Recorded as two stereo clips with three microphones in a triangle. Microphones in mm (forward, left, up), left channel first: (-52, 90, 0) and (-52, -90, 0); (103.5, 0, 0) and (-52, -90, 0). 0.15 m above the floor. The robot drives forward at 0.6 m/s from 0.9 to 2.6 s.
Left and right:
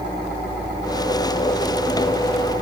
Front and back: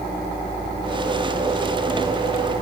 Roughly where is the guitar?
No guitar in this recording.